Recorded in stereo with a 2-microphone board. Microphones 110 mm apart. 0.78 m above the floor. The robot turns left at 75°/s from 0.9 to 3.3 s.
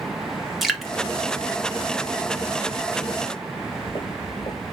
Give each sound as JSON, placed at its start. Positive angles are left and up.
{"t": 0.6, "sound": "dripping", "side_deg": 0, "distance_m": 0.7}
{"t": 3.5, "sound": "footsteps", "side_deg": 55, "distance_m": 1.6}